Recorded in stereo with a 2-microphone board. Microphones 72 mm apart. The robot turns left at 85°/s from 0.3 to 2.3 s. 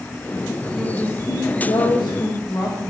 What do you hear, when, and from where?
0.8 s a woman speaking: straight behind, 1.4 m; by 2.9 s 50° left, 1.4 m